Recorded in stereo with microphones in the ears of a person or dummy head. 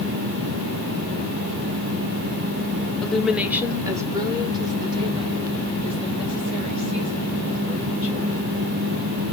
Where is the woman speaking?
5° left (ahead or behind), 0.6 m; by 8.4 s 30° right (ahead or behind), 3.5 m.